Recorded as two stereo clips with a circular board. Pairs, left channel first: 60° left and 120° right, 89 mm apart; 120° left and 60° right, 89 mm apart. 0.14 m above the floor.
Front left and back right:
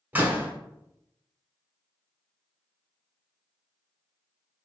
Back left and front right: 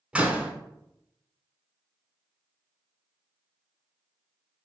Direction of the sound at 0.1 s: 110° right.